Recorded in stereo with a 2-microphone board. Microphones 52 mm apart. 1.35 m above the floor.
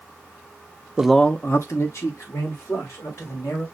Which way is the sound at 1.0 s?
15° right (ahead or behind).